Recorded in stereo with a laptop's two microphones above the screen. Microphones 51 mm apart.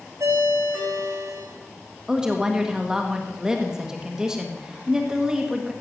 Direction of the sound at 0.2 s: 85° right.